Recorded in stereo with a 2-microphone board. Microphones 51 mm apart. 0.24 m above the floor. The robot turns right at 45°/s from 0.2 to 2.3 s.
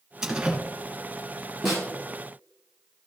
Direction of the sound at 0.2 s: 15° right (ahead or behind).